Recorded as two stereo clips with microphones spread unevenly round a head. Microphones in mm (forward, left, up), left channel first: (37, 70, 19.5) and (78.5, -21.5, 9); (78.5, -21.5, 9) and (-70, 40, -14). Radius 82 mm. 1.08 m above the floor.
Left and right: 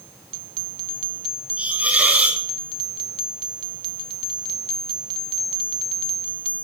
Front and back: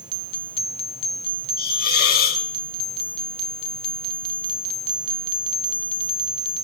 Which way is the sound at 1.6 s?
10° left.